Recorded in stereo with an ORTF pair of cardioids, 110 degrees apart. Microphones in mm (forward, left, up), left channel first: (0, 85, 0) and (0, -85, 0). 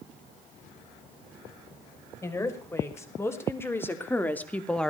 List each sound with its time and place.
2.2 s a woman speaking: 15° left, 5.5 m; by 4.9 s 5° left, 1.7 m